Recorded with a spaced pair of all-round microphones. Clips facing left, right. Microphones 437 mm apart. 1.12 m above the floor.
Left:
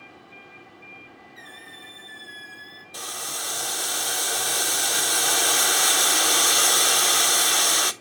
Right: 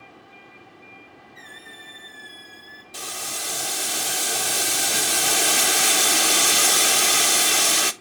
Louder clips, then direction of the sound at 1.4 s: Even; 65° right (ahead or behind).